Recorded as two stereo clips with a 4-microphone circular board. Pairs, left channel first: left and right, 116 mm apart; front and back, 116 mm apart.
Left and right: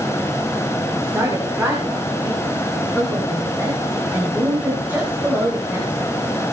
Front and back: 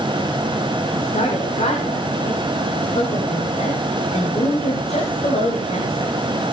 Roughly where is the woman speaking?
Ahead.